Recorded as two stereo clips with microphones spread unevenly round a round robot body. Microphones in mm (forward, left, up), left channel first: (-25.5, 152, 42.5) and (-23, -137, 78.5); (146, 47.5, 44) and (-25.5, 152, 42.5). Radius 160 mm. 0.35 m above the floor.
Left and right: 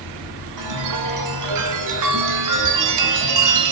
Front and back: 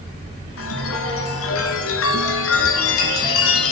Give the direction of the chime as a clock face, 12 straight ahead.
2 o'clock.